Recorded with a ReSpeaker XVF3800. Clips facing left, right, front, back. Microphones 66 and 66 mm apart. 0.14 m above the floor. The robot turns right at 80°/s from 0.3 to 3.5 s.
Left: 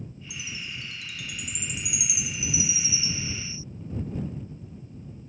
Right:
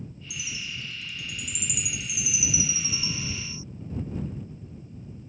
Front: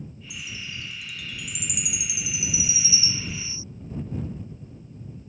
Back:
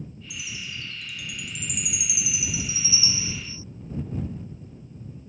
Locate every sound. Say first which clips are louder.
0.3 s a chime: right 1 dB, even; 25° left; by 3.6 s 75° right